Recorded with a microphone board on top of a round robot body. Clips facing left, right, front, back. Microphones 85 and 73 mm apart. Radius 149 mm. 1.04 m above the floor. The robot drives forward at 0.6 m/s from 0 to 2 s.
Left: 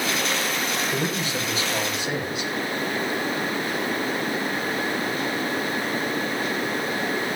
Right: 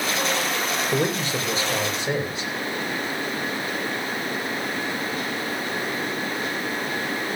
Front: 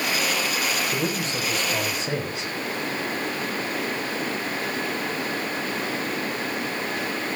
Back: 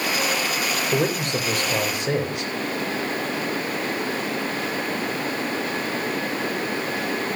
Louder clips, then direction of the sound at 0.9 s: Right 3 dB, back 4 dB; 145° right.